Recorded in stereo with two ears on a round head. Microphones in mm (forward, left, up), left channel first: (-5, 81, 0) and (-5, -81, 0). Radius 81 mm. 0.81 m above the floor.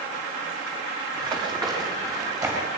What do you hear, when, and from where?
1.1 s running footsteps: 30° right (ahead or behind), 9 m; by 2.7 s 15° right (ahead or behind), 10.5 m